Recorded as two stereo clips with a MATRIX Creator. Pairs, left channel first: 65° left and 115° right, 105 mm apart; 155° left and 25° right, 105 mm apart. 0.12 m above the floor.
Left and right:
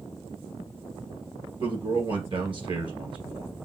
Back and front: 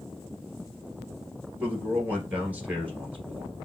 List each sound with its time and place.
1.6 s a man speaking: 95° right, 1.7 m